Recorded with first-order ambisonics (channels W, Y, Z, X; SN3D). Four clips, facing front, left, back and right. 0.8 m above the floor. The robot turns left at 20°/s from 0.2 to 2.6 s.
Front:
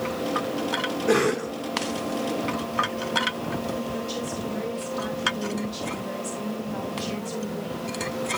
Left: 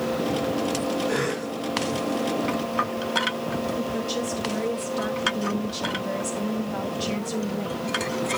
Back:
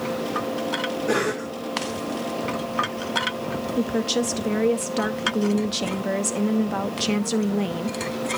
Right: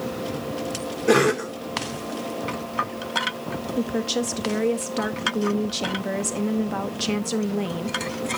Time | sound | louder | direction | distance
1.1 | a cough | right 7 dB, front 4 dB | 80° right | 2.0 m
3.8 | a woman speaking | right 2 dB, back 7 dB | 145° right | 0.8 m